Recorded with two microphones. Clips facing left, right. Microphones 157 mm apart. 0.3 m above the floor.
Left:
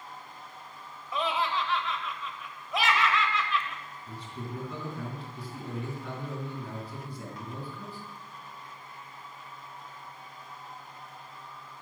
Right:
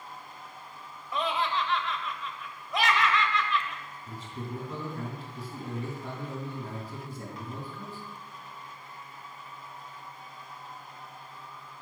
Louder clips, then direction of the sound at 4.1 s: Right 1 dB; 30° right (ahead or behind).